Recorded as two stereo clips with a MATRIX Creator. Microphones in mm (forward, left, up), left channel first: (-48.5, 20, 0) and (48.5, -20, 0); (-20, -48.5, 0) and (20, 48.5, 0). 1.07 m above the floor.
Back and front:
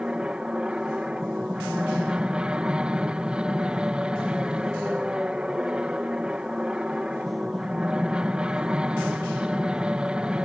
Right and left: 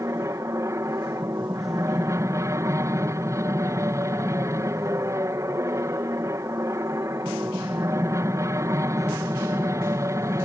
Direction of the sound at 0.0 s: 50° left.